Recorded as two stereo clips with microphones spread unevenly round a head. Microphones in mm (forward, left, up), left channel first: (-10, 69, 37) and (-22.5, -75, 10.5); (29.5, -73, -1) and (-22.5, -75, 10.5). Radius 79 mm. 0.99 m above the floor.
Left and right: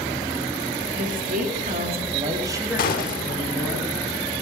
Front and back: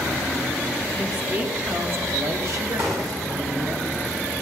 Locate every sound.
0.9 s a woman speaking: 110° right, 3 m; by 3.8 s 165° left, 3 m
2.8 s a gunshot: 115° left, 1.7 m